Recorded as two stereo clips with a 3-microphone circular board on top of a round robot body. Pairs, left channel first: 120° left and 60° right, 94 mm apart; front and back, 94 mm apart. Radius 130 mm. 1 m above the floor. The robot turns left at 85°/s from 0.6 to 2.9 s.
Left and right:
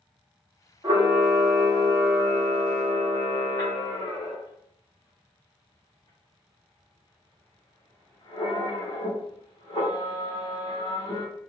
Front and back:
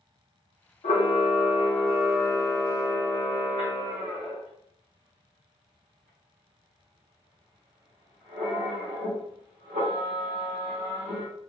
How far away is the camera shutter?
About 1.0 m.